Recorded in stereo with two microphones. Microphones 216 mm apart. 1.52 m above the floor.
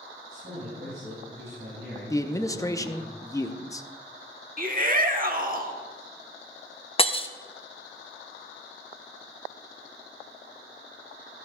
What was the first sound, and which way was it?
A man speaking, 70° right (ahead or behind).